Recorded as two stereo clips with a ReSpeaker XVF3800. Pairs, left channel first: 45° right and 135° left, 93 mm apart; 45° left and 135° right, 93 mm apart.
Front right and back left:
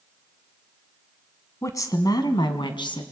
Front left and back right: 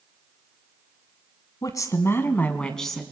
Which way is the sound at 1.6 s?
5° left.